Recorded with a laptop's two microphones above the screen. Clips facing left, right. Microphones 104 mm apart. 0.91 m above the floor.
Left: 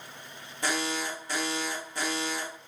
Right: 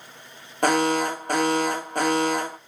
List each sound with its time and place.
0.6 s an alarm: 60° right (ahead or behind), 1.4 m